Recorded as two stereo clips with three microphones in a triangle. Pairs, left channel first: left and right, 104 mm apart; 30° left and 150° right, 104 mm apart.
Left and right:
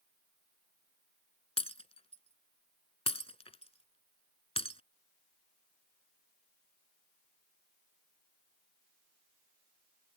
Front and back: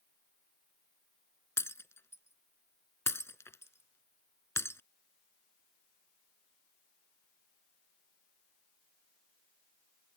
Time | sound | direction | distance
1.6 | breaking glass | 95° left | ?